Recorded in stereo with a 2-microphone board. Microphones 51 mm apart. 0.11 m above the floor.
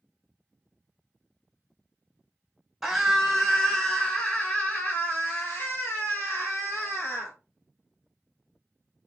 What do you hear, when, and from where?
2.8 s a scream: 5° right (ahead or behind), 1.6 m; by 7.3 s 60° left (ahead or behind), 3 m